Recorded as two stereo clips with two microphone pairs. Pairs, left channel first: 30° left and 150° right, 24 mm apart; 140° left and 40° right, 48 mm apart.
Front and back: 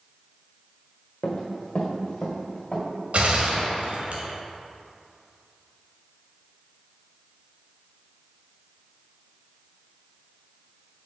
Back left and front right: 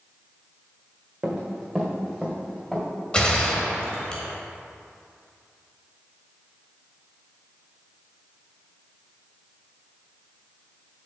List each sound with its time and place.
1.2 s running footsteps: 30° left, 1.6 m; by 2.9 s 60° left, 2.5 m
3.1 s a gunshot: 155° right, 1.1 m